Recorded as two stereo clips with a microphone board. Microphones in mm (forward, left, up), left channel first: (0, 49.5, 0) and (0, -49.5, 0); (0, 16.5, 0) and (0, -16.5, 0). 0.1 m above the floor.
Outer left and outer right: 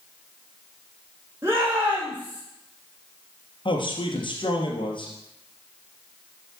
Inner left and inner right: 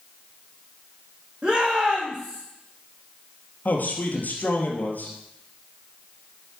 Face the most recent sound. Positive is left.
turn(degrees=55)  # may be behind; listen again after turning